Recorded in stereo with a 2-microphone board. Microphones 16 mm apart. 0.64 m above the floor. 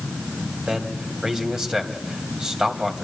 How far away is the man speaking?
About 3 m.